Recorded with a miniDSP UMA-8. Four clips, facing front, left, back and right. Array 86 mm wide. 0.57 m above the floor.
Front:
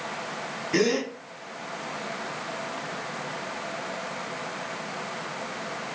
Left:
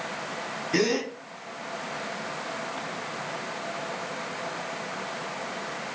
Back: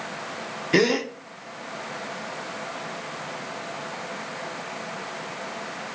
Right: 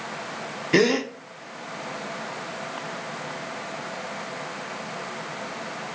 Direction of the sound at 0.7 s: 130° right.